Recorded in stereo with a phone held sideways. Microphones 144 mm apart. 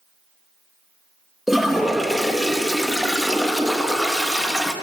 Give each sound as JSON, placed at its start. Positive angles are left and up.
{"t": 1.5, "sound": "a toilet flushing", "side_deg": 0, "distance_m": 0.9}